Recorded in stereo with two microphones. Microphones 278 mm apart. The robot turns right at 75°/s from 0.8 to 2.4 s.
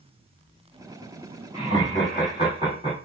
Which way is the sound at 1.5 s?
140° left.